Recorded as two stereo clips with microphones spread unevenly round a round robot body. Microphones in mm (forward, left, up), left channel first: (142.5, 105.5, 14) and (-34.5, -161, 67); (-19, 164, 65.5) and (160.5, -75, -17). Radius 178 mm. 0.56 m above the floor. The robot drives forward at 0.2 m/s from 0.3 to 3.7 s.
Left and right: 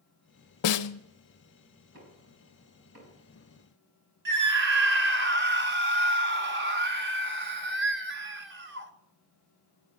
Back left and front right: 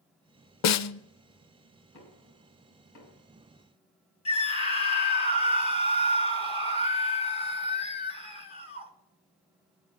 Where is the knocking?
175° left, 4.5 m.